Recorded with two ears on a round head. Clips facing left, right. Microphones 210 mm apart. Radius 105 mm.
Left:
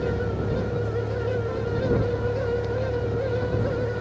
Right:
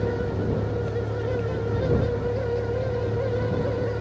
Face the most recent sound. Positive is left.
turn(degrees=0)  # may be behind; listen again after turning